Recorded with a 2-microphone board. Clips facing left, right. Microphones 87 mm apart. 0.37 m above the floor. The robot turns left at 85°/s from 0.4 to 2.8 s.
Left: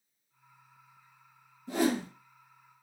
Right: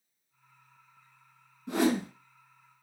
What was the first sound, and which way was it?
A whoosh, 85° right.